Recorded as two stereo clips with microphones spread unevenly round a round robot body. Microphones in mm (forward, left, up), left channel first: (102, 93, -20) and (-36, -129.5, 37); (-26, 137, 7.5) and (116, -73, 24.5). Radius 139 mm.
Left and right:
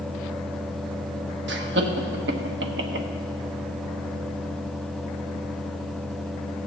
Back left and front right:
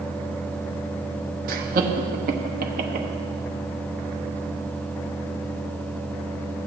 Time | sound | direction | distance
1.5 | laughter | 90° right | 0.9 m